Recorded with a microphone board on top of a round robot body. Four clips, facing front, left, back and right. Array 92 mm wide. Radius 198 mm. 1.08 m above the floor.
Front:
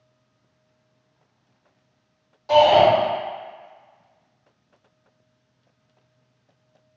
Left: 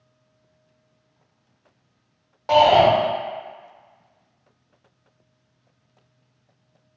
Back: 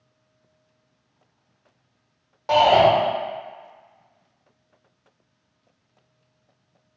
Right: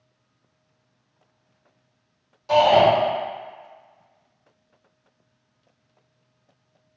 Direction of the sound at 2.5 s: 125° left.